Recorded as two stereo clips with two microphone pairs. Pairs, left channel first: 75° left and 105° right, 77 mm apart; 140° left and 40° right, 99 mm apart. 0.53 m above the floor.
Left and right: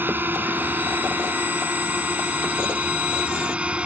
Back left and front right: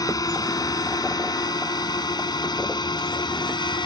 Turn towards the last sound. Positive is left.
turn(degrees=180)